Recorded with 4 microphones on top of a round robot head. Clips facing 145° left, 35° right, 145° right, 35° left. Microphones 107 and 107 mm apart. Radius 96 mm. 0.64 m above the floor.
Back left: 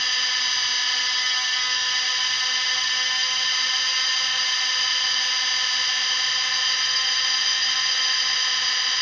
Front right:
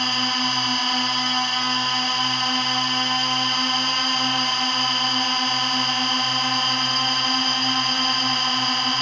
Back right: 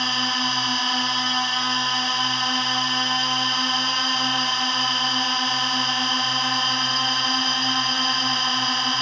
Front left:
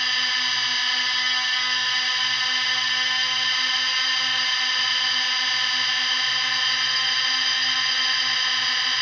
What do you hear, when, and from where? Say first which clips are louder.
0.0 s a drone: front right 8 dB, back right 5 dB; 85° right